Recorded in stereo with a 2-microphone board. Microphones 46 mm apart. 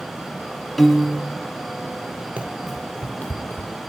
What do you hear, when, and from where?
0.8 s a piano: 5° left (ahead or behind), 0.6 m
2.4 s running footsteps: 30° right (ahead or behind), 0.8 m; by 3.7 s 50° left (ahead or behind), 1.4 m